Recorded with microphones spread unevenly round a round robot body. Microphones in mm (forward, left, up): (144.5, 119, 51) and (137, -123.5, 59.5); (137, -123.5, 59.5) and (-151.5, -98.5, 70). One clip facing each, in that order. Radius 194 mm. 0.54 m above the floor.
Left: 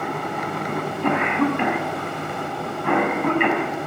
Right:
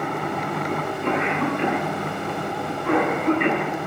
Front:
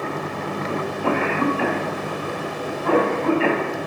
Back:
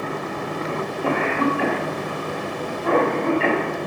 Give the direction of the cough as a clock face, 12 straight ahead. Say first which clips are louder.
Left 3 dB, front 1 dB; 9 o'clock.